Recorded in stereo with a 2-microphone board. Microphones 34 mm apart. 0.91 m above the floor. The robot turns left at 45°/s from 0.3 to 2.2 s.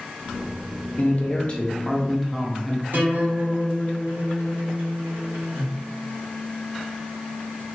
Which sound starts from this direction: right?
A guitar, at 2.9 s.